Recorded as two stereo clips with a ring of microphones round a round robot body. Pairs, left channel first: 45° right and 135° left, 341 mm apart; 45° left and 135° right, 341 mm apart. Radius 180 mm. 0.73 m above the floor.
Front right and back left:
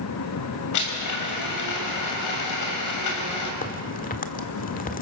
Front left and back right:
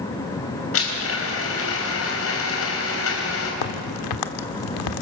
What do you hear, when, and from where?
0.7 s a blender: 5° right, 4.5 m
3.6 s a crack: 20° left, 1.4 m